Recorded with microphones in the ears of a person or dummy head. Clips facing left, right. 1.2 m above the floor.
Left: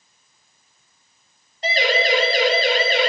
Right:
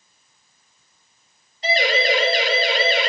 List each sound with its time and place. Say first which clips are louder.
1.6 s a siren: even; 50° left (ahead or behind), 9 m; by 3.1 s 45° left (ahead or behind), 7.5 m